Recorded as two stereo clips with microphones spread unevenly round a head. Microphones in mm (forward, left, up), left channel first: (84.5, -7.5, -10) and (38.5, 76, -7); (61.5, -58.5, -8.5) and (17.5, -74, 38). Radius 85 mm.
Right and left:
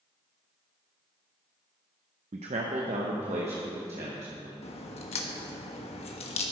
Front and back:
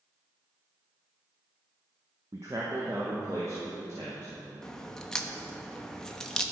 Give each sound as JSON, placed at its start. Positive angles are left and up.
{"t": 2.3, "sound": "a man speaking", "azimuth_deg": 130, "distance_m": 0.7}
{"t": 4.6, "sound": "a crack", "azimuth_deg": -70, "distance_m": 1.1}